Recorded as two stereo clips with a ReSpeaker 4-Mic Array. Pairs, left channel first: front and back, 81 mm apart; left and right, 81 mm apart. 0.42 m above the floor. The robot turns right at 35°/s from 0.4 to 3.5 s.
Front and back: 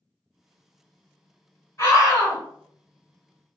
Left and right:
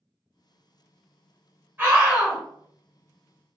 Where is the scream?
40° right, 1.5 m; by 2.4 s 20° right, 1.5 m.